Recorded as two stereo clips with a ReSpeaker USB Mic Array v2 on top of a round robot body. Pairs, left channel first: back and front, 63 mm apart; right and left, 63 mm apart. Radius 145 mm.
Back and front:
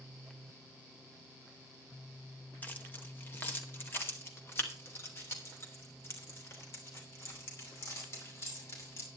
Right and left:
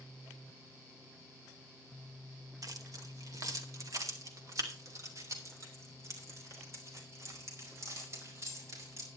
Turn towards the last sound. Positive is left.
turn(degrees=135)